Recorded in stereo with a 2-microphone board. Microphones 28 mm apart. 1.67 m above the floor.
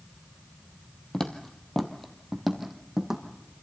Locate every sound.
1.1 s footsteps: 25° left (ahead or behind), 1.8 m; by 3.2 s 10° right (ahead or behind), 3 m